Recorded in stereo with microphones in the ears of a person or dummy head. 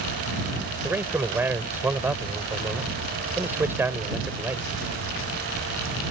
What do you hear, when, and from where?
0.8 s a man speaking: 5° right (ahead or behind)